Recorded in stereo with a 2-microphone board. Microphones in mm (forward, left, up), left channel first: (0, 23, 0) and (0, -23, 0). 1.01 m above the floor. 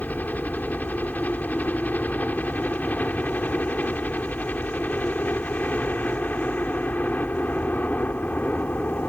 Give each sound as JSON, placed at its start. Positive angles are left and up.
{"t": 0.0, "sound": "a helicopter", "side_deg": 40}